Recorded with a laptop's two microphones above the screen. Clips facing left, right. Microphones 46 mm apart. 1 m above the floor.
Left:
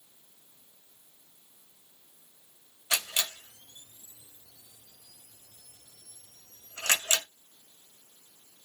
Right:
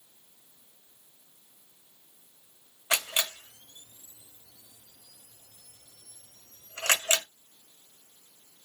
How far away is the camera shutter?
About 0.8 m.